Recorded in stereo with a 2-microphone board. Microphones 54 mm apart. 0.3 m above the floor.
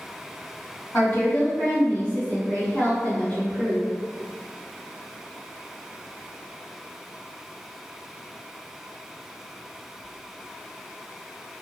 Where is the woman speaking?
40° left (ahead or behind), 1.8 m.